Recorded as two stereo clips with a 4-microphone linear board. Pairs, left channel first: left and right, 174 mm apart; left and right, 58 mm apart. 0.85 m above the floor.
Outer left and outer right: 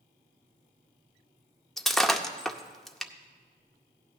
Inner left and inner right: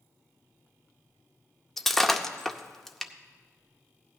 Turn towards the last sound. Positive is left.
turn(degrees=0)  # may be behind; listen again after turning